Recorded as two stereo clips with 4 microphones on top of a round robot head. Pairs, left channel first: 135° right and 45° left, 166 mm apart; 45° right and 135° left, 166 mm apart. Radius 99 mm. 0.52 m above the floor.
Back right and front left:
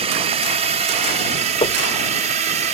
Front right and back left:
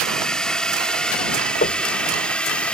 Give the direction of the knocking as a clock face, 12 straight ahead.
3 o'clock.